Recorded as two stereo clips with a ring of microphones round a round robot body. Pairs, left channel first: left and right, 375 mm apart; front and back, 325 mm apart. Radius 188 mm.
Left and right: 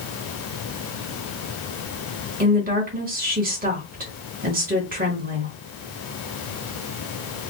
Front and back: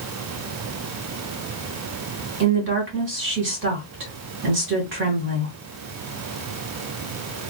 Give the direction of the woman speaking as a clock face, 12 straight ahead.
5 o'clock.